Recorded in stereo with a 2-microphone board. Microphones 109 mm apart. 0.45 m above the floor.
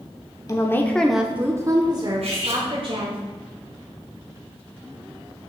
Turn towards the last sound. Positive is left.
turn(degrees=-75)  # may be behind; listen again after turning